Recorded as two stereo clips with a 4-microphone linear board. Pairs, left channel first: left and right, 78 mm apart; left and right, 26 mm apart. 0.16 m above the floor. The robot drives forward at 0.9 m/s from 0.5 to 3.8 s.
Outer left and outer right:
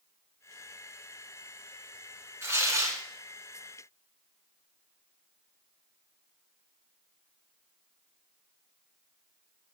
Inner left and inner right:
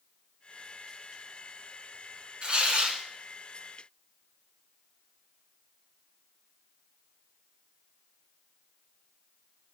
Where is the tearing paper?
35° right (ahead or behind), 1.2 m; by 3.0 s 40° right (ahead or behind), 1.0 m.